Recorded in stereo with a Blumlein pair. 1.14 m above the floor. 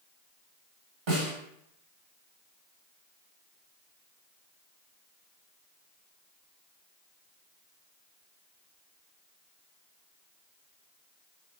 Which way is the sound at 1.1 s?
40° right.